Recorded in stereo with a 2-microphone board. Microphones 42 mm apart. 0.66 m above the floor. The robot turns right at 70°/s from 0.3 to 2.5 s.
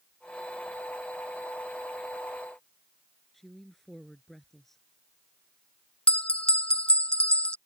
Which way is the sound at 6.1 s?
25° left (ahead or behind).